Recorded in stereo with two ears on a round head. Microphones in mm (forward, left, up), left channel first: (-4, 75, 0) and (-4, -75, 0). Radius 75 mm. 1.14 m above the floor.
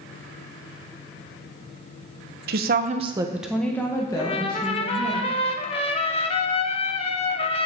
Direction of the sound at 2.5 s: 65° right (ahead or behind).